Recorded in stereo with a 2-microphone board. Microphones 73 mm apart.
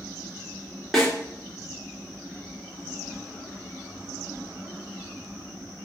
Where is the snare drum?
Centre (ahead or behind), 3.5 m.